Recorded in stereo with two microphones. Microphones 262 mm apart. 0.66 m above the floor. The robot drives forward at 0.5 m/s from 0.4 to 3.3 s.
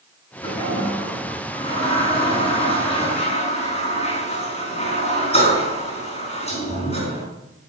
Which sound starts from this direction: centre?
A toilet flushing, at 0.4 s.